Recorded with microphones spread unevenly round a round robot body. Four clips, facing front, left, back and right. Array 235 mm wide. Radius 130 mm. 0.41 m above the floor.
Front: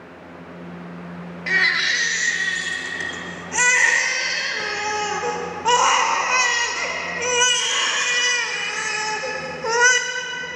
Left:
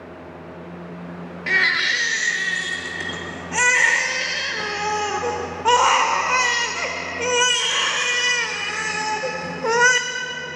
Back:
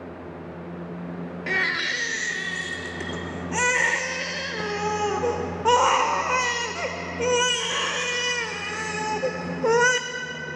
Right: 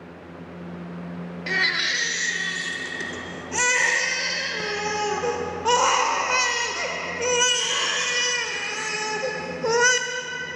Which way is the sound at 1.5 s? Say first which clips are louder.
Left 5 dB, front 5 dB; 170° right.